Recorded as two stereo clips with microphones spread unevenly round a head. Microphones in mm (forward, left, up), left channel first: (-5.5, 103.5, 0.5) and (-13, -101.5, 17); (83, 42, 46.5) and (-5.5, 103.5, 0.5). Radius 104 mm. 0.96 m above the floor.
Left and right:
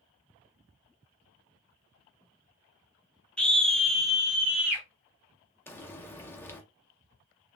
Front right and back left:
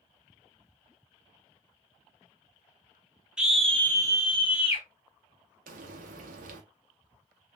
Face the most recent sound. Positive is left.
turn(degrees=170)